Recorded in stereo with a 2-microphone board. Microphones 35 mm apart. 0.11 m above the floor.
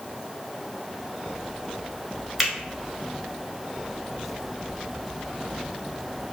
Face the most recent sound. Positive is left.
turn(degrees=-5)  # may be behind; listen again after turning